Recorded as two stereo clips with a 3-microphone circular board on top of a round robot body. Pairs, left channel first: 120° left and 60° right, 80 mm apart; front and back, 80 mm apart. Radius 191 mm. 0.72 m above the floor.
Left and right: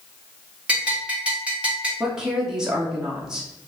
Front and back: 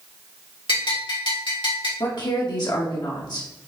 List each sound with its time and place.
0.7 s a bell: 15° left, 3 m
2.0 s a woman speaking: 20° left, 2 m